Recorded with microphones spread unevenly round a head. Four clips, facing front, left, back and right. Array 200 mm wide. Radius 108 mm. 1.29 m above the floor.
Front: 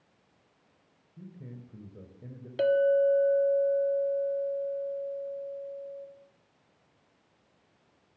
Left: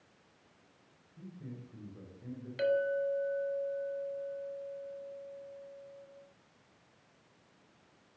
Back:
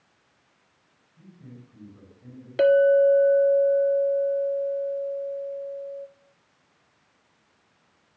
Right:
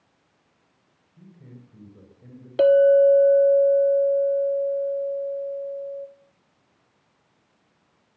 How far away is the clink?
About 1.3 m.